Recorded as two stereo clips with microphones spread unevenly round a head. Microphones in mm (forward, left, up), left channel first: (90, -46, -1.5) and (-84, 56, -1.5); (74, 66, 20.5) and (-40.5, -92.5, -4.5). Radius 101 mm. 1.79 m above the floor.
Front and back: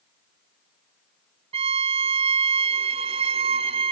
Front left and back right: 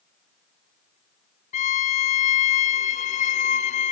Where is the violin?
95° left, 0.5 m.